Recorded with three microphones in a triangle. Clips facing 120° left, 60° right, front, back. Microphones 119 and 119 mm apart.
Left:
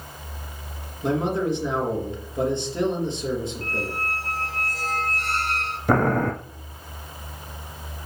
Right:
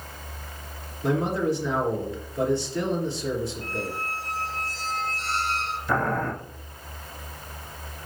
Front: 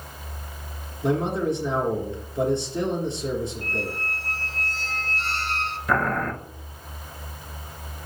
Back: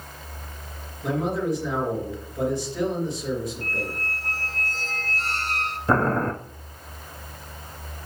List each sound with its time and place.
1.0 s a man speaking: 60° left, 3 m
3.6 s a squeak: 140° left, 1.0 m
5.9 s boiling: 130° left, 0.6 m